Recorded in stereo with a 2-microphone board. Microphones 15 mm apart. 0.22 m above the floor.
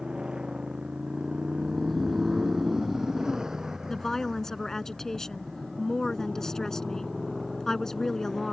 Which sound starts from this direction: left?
A woman speaking, at 3.9 s.